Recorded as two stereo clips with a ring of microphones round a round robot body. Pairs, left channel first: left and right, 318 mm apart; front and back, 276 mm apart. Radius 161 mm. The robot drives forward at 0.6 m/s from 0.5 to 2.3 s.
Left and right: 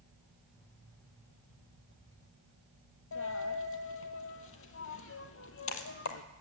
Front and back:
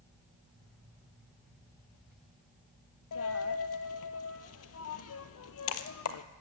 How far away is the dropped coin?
About 0.9 m.